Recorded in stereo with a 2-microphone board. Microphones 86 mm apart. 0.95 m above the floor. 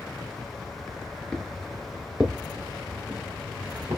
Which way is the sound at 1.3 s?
10° left (ahead or behind).